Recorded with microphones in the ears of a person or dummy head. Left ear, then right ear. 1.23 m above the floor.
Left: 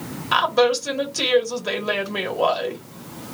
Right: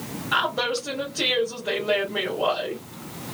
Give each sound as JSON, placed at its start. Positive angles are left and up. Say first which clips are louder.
{"t": 0.3, "sound": "a woman speaking", "louder": "left 6 dB", "side_deg": 75, "distance_m": 1.2}